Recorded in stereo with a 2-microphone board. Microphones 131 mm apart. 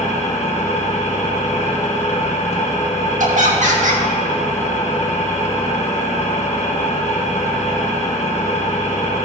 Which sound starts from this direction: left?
An engine running, at 0.0 s.